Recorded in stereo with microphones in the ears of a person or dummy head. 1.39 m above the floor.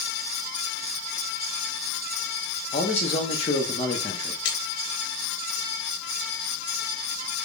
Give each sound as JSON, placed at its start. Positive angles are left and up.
{"t": 2.7, "sound": "a man speaking", "side_deg": 35, "distance_m": 0.6}
{"t": 4.5, "sound": "a splash", "side_deg": 70, "distance_m": 0.8}